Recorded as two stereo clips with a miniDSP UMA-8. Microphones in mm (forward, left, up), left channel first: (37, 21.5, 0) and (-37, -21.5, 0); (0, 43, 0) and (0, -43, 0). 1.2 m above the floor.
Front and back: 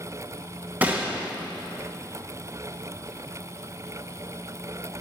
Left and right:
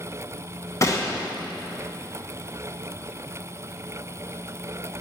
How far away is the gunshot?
About 1.3 m.